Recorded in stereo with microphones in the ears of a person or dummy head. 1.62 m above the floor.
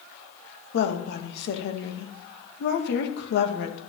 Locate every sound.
0.7 s a woman speaking: 75° left (ahead or behind), 1.8 m